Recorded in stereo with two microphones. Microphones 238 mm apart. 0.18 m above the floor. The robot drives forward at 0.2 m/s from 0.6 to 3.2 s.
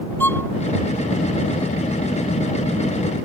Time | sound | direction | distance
0.2 | a violin | 10° left (ahead or behind) | ?